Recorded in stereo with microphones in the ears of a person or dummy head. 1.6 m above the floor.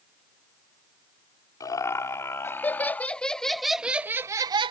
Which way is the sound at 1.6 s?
15° left (ahead or behind).